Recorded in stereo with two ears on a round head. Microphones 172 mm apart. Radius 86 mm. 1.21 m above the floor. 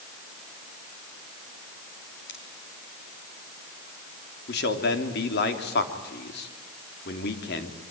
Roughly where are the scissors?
Left.